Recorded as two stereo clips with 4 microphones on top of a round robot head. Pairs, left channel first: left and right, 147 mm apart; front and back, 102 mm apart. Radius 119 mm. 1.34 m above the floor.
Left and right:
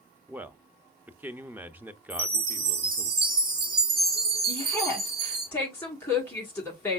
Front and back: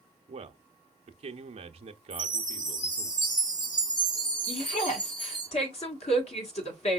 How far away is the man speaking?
About 0.8 m.